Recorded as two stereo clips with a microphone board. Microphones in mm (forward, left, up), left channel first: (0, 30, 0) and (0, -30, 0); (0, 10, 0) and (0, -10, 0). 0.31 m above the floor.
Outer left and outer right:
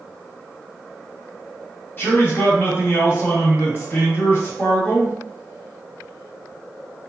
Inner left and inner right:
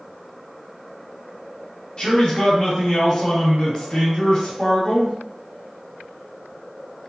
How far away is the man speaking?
About 1.9 m.